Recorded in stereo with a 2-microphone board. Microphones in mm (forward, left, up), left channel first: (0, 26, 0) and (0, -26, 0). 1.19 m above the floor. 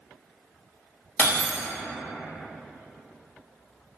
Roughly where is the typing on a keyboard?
No typing on a keyboard in this recording.